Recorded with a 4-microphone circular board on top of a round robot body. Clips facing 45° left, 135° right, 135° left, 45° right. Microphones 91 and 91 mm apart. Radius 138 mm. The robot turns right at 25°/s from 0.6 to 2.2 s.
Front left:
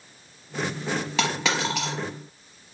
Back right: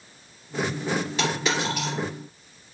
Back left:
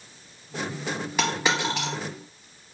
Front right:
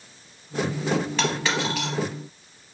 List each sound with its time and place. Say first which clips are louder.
1.2 s a dropped coin: front left 3 dB, even; 55° left, 0.9 m; by 1.9 s 75° left, 0.9 m